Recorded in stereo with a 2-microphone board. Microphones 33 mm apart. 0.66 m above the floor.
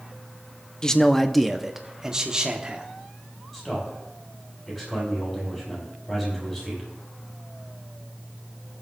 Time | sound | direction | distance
0.8 | a man speaking | 20° left (ahead or behind) | 0.6 m
3.5 | a man speaking | 10° left (ahead or behind) | 5.5 m